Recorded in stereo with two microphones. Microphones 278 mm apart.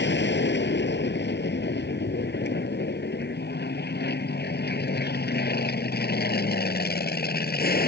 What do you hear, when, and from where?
0.0 s an aircraft: 40° left (ahead or behind); by 7.9 s 35° left (ahead or behind)